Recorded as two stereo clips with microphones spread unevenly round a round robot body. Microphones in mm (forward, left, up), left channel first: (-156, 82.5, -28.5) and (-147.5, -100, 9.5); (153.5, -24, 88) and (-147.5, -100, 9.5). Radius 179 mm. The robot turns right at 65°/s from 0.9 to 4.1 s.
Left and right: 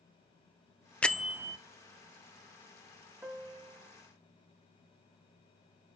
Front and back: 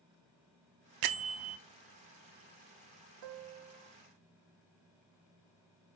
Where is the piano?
165° right, 0.9 m; by 3.9 s 120° right, 0.9 m.